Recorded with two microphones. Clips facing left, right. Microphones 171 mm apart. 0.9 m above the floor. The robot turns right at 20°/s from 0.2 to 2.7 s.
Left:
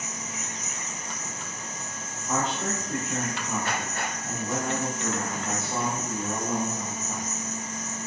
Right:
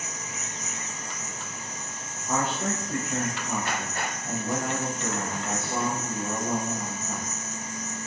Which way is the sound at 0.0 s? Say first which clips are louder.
Left 1 dB; 55° left.